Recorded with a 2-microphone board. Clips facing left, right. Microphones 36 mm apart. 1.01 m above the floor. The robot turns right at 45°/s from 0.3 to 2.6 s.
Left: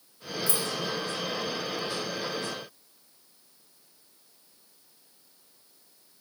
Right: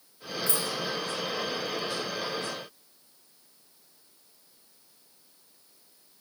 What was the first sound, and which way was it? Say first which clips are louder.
Keys jangling: even; 45° right (ahead or behind).